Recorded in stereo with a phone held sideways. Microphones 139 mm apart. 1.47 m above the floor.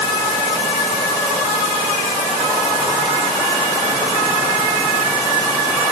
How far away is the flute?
No flute in this recording.